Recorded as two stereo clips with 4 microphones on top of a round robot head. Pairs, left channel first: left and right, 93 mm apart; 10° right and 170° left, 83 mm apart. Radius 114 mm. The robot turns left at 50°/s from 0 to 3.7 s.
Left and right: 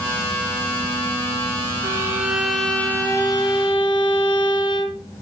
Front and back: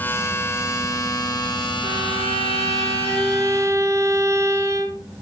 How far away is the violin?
About 1.7 m.